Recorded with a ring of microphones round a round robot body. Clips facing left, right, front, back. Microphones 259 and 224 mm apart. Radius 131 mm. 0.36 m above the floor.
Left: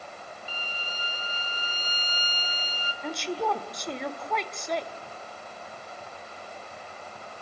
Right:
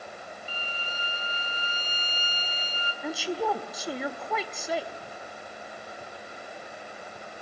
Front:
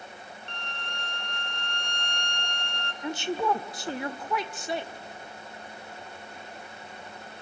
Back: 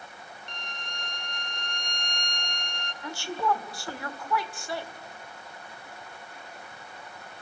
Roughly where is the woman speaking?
Ahead.